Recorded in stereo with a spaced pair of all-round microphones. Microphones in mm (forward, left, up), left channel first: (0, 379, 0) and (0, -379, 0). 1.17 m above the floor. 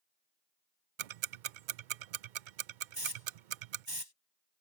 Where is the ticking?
85° right.